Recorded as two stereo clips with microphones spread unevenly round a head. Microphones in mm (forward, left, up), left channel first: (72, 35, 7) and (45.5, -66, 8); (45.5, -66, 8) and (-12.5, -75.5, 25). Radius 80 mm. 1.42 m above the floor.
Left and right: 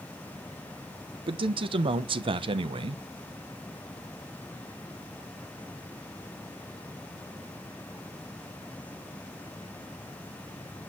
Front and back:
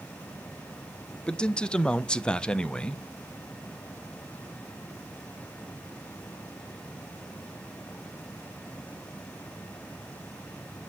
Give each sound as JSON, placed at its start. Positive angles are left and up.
{"t": 1.3, "sound": "a man speaking", "azimuth_deg": -75, "distance_m": 0.6}